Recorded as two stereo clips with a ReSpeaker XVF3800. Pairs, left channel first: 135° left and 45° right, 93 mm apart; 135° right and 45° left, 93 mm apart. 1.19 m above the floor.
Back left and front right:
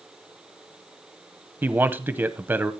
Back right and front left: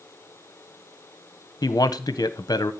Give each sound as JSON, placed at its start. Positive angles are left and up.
{"t": 1.6, "sound": "a man speaking", "azimuth_deg": -105, "distance_m": 0.9}